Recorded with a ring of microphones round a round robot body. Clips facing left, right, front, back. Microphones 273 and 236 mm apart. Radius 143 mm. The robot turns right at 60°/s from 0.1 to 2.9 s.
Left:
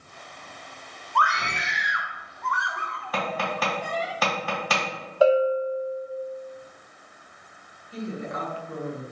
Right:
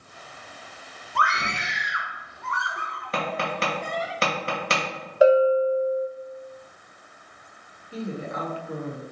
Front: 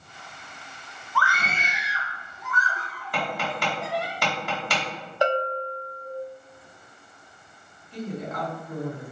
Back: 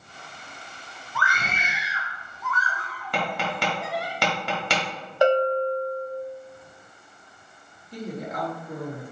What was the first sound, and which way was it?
A scream, 140° right.